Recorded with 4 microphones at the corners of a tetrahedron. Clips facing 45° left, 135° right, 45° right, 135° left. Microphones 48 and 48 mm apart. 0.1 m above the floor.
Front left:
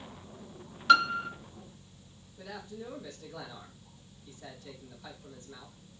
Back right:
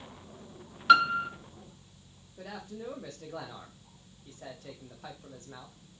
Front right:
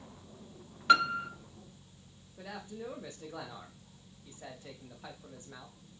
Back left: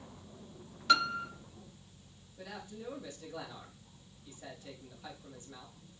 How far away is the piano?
About 0.6 m.